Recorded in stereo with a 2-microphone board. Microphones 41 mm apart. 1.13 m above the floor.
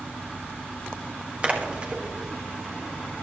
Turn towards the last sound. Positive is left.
turn(degrees=-30)  # may be behind; listen again after turning